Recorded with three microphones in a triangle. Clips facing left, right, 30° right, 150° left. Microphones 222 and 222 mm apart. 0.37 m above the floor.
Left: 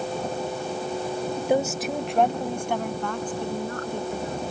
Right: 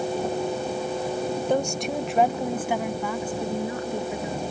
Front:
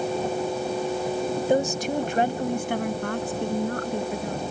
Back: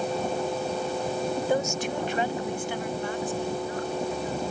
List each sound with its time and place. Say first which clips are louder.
1.5 s a woman speaking: left 3 dB, front 6 dB; 20° left; by 4.4 s 10° right